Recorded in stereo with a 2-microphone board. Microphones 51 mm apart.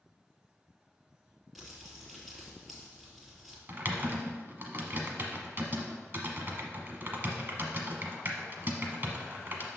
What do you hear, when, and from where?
1.6 s crumpling: centre (ahead or behind), 3 m
3.7 s typing on a keyboard: 40° right (ahead or behind), 1.1 m